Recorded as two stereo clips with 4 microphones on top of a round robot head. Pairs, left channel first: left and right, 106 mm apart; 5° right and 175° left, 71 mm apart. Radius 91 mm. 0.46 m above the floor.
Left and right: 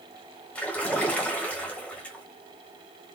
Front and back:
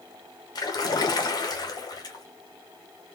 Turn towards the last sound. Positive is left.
turn(degrees=10)